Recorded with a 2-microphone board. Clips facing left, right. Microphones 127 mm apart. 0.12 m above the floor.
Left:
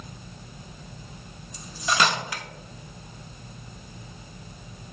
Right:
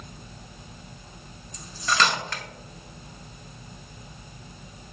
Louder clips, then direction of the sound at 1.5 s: Even; 10° left (ahead or behind).